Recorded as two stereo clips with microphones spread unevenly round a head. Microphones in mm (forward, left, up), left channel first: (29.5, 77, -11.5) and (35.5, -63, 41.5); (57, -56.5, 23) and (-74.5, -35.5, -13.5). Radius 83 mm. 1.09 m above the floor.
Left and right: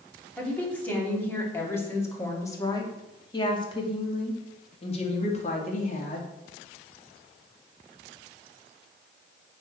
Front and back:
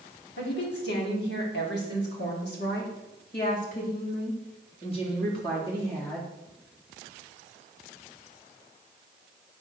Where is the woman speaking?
15° left, 3.5 m; by 6.3 s 70° left, 3 m.